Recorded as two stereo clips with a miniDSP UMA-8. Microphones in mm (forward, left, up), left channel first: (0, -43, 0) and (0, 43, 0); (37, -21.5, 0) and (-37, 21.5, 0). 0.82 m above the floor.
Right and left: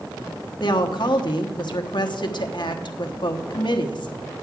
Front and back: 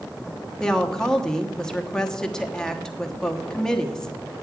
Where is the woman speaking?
110° right, 1.1 m.